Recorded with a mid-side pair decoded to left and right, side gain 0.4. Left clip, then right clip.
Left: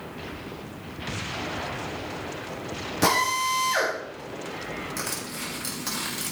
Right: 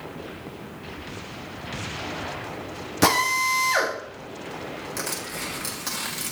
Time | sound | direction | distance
3.0 | a drill | 40° right | 3 m
5.0 | crushing | 20° right | 4.5 m